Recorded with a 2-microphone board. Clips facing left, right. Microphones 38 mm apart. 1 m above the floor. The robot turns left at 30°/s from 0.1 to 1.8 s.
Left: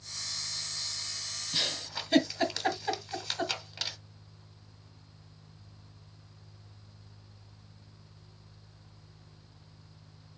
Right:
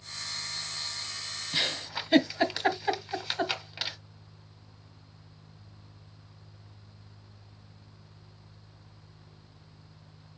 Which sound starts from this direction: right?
A giggle, at 1.5 s.